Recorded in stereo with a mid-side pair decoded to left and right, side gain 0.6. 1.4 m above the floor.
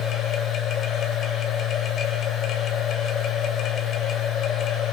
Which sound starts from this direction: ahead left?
A machine running, at 0.0 s.